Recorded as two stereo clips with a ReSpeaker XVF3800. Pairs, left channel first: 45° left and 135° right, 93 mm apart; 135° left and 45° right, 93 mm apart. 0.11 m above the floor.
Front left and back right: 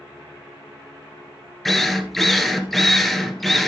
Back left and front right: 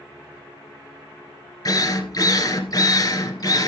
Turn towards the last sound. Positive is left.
turn(degrees=130)